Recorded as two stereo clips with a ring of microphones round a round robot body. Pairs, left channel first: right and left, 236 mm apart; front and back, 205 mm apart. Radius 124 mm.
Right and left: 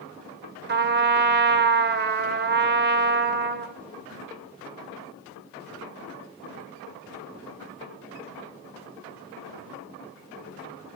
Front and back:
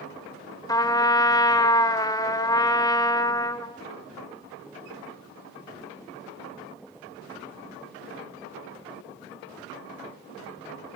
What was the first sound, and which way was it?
A trumpet, 65° left.